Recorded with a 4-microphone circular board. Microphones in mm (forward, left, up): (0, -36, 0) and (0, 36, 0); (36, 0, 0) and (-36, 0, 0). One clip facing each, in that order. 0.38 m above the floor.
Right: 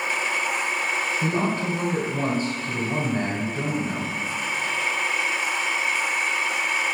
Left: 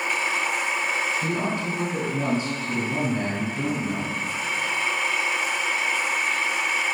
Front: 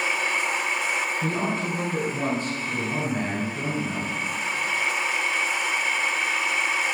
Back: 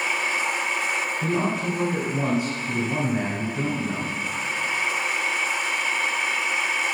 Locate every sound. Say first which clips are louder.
1.2 s a man speaking: right 2 dB, back 2 dB; 100° right, 1.4 m